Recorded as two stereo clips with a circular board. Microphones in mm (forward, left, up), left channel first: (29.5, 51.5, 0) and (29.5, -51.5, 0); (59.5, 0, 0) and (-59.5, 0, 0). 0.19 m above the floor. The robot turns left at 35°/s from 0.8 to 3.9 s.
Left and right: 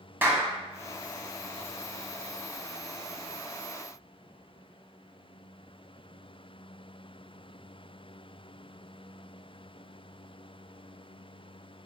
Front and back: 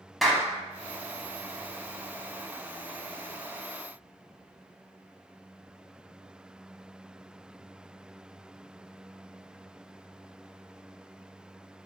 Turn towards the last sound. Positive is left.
turn(degrees=160)